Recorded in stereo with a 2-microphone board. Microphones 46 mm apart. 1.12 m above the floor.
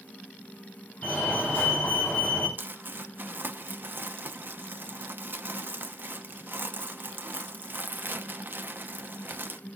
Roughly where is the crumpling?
Right.